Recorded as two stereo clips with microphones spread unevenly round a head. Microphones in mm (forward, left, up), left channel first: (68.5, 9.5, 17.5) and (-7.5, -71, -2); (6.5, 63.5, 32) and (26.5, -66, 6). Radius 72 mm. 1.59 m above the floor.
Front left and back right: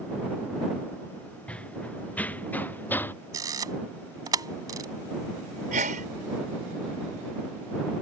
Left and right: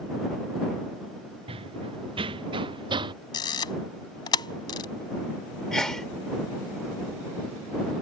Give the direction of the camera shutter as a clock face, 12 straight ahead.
7 o'clock.